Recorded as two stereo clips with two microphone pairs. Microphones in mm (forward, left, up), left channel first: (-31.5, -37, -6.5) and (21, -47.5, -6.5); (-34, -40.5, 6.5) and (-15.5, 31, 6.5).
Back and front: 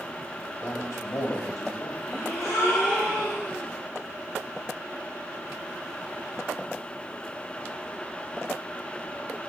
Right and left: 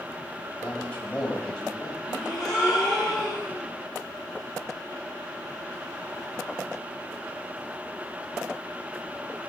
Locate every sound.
0.6 s a man speaking: 175° right, 3.5 m; by 1.9 s 170° left, 3.5 m
2.0 s a gasp: 165° left, 6.5 m